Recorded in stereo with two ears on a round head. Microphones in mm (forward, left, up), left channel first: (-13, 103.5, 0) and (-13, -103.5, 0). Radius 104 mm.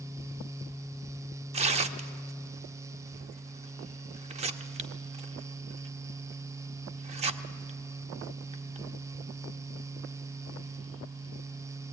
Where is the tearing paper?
30° right (ahead or behind), 0.7 m.